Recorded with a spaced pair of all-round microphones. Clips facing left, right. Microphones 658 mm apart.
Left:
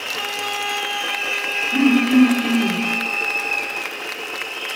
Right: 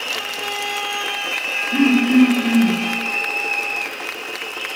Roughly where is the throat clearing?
Right.